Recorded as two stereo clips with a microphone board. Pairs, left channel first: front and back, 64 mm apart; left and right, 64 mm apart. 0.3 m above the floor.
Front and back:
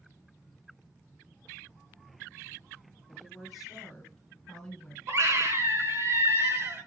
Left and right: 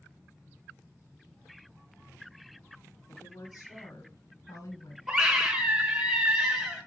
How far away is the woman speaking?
About 2.5 m.